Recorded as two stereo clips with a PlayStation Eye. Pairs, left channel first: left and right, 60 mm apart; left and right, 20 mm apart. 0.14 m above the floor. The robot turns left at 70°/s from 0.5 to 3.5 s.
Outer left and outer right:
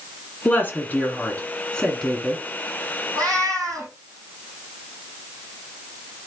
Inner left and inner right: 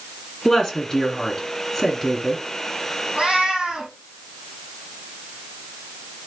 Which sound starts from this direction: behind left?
A woman speaking, at 0.5 s.